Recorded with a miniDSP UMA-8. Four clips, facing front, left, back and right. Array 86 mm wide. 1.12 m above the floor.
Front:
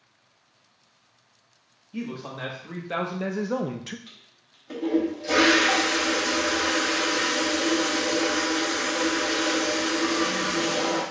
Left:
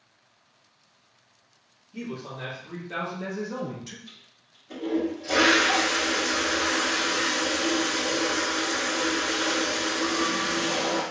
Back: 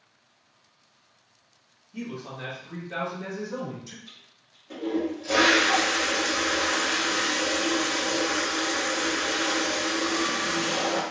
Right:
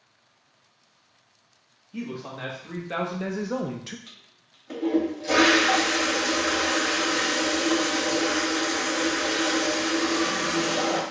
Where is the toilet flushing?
55° right, 2 m.